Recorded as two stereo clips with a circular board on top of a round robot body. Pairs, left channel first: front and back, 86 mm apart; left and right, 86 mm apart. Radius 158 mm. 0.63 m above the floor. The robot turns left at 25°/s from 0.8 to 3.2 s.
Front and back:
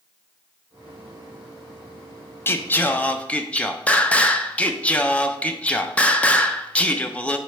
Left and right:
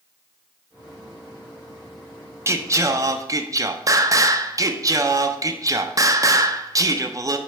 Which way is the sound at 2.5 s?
50° right.